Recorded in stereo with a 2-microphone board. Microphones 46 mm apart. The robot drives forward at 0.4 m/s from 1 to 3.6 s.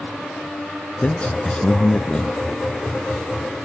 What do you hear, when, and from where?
1.0 s a man speaking: 25° left (ahead or behind), 1.1 m; by 2.4 s 20° left (ahead or behind), 1.3 m